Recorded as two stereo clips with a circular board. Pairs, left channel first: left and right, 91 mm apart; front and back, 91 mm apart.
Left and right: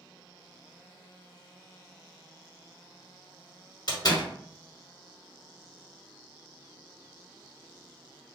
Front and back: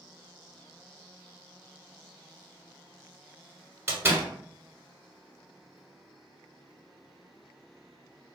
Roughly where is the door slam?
Behind left.